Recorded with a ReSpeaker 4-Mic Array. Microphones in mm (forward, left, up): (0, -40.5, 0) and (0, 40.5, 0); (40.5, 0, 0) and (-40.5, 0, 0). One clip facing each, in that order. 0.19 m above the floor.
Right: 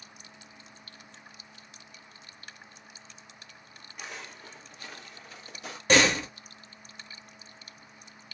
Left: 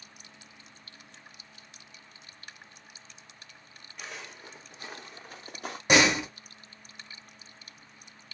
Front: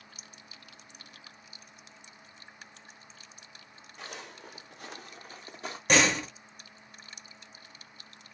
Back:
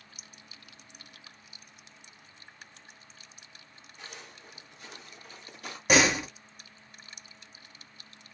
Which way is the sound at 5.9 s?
115° left.